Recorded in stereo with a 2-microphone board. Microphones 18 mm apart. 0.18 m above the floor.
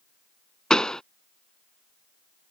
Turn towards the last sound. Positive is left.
turn(degrees=45)  # may be behind; listen again after turning